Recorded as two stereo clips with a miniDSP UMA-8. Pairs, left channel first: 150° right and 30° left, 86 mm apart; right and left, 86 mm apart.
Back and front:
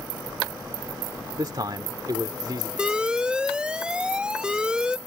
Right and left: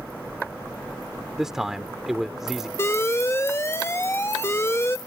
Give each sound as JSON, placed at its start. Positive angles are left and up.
{"t": 1.4, "sound": "a man speaking", "azimuth_deg": 5}
{"t": 2.8, "sound": "an alarm", "azimuth_deg": -45}